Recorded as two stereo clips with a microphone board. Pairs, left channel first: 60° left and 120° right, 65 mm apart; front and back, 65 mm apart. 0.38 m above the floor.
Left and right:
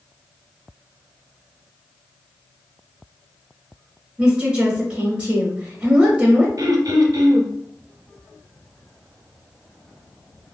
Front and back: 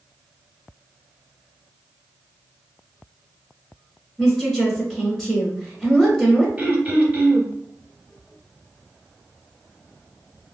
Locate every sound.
4.2 s a woman speaking: 80° right, 0.8 m
6.6 s throat clearing: 115° right, 0.9 m